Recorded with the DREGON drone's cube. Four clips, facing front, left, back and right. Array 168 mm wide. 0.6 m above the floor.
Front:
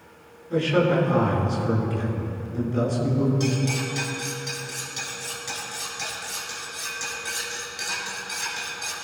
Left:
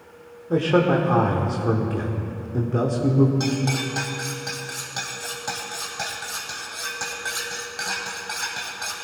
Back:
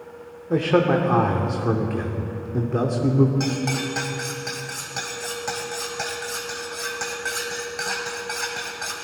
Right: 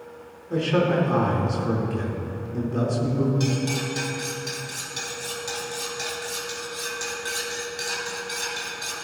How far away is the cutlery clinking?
About 2 m.